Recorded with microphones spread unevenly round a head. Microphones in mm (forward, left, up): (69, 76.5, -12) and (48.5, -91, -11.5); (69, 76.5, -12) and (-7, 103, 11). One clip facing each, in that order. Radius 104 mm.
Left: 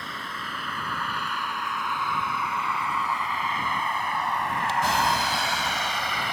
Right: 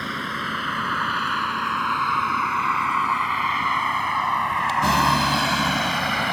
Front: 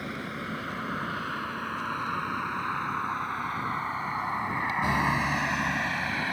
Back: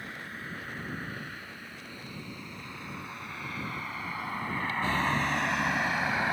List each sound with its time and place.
0.0 s a vehicle: 85° right; by 6.3 s 125° right